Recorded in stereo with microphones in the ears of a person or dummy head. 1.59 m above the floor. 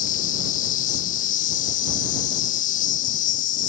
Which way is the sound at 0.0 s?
45° left (ahead or behind).